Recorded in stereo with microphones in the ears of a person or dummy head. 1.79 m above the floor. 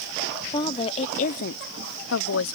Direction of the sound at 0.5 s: 25° left (ahead or behind).